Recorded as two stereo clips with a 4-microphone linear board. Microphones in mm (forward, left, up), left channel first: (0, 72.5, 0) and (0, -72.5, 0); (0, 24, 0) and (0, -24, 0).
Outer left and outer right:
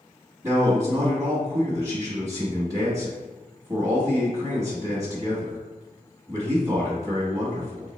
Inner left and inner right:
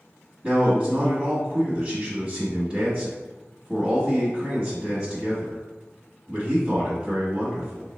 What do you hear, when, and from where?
0.4 s a man speaking: 25° right (ahead or behind), 1.0 m